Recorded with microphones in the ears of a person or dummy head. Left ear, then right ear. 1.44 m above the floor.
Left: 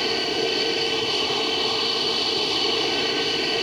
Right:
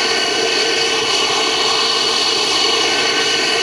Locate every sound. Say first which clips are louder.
0.0 s an aircraft: right 7 dB; 50° right (ahead or behind)